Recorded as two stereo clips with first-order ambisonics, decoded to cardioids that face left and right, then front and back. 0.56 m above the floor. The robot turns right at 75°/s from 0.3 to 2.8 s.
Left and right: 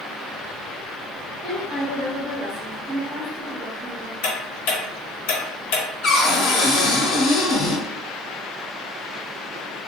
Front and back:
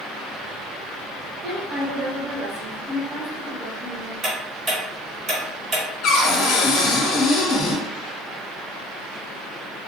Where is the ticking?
105° left, 1.1 m.